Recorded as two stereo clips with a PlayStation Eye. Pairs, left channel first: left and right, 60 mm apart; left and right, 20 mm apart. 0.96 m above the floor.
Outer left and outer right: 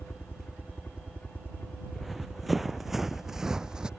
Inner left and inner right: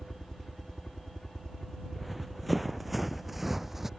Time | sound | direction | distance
0.0 | a helicopter | 35° left (ahead or behind) | ?
1.9 | running footsteps | centre (ahead or behind) | ?